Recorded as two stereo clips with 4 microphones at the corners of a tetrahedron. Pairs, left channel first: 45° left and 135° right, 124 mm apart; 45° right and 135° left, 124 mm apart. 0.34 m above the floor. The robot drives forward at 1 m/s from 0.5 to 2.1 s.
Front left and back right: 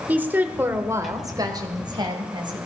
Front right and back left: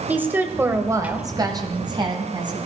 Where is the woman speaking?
175° left, 1.4 m; by 2.6 s straight behind, 2.5 m.